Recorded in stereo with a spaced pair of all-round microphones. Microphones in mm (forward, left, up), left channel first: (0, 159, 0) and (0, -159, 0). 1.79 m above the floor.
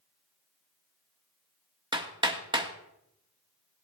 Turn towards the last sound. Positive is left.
turn(degrees=-15)  # may be behind; listen again after turning